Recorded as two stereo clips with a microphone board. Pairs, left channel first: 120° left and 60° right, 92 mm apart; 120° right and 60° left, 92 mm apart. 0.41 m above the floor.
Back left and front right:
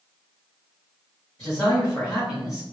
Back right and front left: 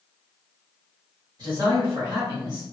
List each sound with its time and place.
1.4 s a man speaking: 50° left, 1.6 m